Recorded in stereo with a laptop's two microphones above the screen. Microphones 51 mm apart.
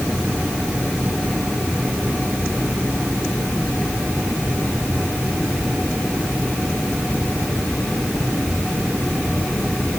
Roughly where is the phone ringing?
No phone ringing in this recording.